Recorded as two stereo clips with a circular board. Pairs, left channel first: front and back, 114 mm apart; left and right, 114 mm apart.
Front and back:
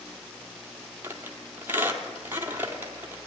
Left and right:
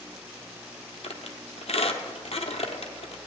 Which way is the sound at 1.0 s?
110° left.